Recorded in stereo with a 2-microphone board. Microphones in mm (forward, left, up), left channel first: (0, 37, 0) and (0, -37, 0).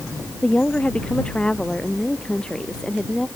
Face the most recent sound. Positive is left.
turn(degrees=10)  # may be behind; listen again after turning